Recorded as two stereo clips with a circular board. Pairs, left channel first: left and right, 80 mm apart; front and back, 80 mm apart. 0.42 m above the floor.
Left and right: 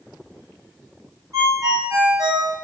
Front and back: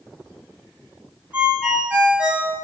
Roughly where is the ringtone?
Behind right.